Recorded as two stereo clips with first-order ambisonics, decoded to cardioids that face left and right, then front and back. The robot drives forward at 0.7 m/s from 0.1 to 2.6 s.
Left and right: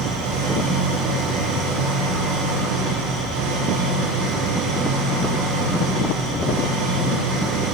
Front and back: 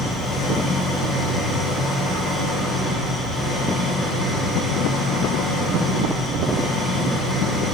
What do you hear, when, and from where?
0.0 s an engine running: 70° right, 8 m; by 7.7 s 85° right, 8 m